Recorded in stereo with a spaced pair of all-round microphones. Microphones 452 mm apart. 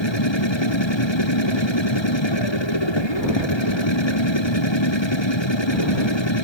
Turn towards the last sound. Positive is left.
turn(degrees=75)  # may be behind; listen again after turning